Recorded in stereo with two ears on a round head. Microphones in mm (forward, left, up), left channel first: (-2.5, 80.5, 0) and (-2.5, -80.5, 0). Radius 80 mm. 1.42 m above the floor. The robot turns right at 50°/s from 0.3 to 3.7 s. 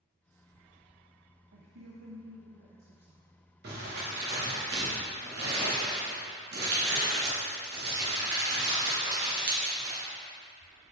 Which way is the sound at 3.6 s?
60° right (ahead or behind).